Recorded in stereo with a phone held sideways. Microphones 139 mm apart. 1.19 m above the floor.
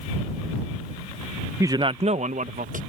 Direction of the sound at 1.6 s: 20° right (ahead or behind).